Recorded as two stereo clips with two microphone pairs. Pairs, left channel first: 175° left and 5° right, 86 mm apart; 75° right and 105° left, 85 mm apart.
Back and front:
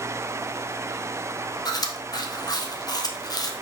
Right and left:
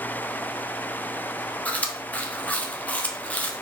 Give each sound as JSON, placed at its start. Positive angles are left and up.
{"t": 1.6, "sound": "chewing", "azimuth_deg": -150, "distance_m": 0.6}